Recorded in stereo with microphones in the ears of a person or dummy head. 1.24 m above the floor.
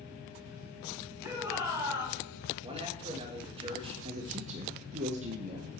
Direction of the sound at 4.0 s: 35° right (ahead or behind).